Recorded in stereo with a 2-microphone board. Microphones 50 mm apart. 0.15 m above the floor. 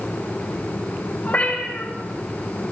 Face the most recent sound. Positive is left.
turn(degrees=35)  # may be behind; listen again after turning